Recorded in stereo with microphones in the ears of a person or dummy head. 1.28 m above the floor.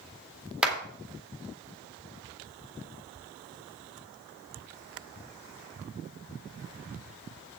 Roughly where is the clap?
Centre.